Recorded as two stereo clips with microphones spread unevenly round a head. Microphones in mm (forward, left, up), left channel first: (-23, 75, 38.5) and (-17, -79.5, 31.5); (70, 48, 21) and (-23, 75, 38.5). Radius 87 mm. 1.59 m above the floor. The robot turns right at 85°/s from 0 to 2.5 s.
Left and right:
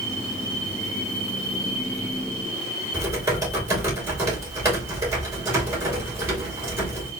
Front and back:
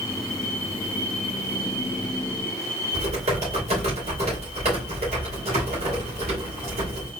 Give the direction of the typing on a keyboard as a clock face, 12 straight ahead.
5 o'clock.